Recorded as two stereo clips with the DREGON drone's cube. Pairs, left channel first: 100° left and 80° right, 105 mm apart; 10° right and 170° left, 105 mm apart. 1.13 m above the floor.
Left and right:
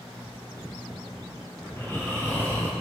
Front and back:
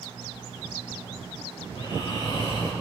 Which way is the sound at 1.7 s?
35° left.